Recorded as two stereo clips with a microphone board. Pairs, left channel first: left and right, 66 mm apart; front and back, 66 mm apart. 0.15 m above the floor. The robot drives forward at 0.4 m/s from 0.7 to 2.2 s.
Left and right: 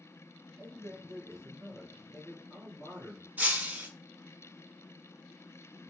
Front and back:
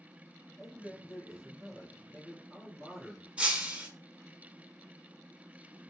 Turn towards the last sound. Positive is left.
turn(degrees=-125)